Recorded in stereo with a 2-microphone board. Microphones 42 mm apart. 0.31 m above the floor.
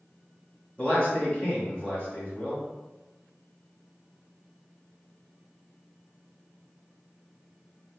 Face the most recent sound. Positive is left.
turn(degrees=35)  # may be behind; listen again after turning